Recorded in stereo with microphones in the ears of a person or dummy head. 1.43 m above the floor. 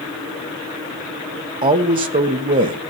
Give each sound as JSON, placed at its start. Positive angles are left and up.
{"t": 1.6, "sound": "a man speaking", "side_deg": -30, "distance_m": 1.1}